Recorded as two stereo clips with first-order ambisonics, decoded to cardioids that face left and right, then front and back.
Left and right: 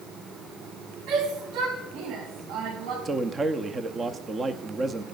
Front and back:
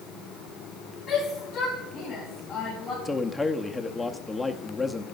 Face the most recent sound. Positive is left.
turn(degrees=-65)